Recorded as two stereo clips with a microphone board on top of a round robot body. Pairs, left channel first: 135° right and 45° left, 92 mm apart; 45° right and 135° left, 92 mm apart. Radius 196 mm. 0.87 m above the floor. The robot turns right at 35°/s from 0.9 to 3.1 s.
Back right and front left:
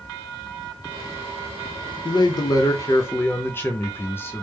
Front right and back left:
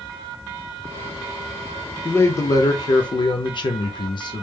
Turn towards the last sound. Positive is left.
turn(degrees=-70)